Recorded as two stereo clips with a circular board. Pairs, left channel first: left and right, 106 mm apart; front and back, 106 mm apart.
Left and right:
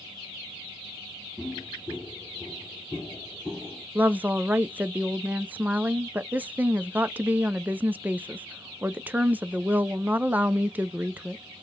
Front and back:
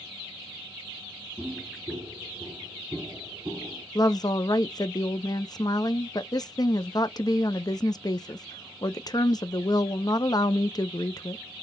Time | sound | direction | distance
1.4 | footsteps | 160° left | 1.7 m
4.0 | a woman speaking | 25° right | 0.5 m